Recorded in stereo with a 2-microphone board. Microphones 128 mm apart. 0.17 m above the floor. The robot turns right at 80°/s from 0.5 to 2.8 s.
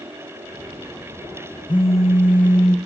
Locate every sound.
1.7 s a phone buzzing: 35° left, 1.9 m; by 2.8 s 125° left, 1.9 m